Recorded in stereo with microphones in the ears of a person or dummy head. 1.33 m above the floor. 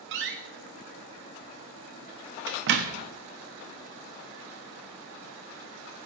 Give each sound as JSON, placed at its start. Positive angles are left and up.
{"t": 0.1, "sound": "a door slam", "side_deg": -55, "distance_m": 1.0}